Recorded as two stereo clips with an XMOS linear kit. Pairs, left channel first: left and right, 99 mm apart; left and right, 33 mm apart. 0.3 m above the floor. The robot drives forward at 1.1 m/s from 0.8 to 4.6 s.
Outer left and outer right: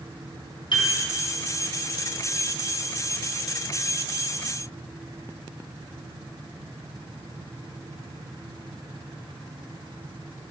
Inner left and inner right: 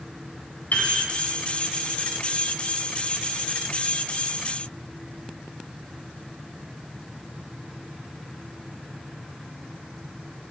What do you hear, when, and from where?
0.7 s a piano: 55° left (ahead or behind), 3 m